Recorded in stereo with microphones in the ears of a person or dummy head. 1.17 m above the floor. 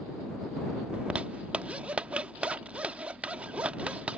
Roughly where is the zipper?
Centre.